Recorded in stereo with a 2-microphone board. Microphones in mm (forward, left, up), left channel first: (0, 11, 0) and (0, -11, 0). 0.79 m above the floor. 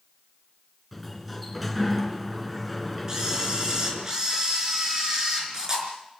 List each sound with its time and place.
0.9 s a sliding door: 5° right (ahead or behind), 2.5 m
3.1 s a camera shutter: 25° right (ahead or behind), 5 m